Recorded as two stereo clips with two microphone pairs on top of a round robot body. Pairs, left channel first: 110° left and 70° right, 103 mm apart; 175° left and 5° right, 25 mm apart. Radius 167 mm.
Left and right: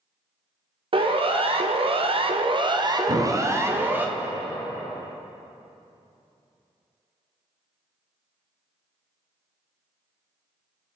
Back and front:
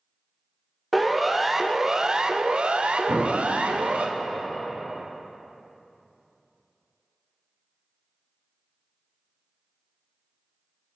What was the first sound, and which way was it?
A siren, 100° right.